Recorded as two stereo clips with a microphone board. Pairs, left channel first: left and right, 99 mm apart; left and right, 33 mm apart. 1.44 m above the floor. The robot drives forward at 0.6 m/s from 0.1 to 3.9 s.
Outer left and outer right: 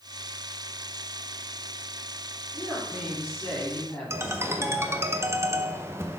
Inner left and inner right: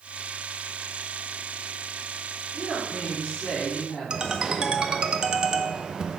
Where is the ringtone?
25° right (ahead or behind), 0.7 m.